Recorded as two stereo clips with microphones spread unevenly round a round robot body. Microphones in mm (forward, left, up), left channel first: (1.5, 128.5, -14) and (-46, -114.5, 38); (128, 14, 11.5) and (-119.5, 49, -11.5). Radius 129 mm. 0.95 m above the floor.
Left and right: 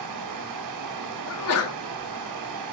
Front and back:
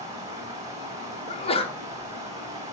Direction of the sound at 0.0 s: 110° right.